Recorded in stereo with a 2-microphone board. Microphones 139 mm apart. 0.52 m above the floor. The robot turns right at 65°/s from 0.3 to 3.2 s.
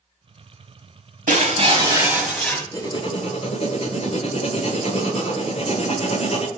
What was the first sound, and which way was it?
Breaking glass, 65° right.